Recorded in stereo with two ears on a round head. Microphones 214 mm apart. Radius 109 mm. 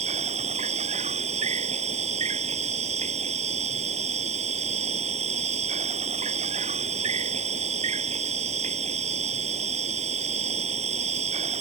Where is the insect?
30° right (ahead or behind).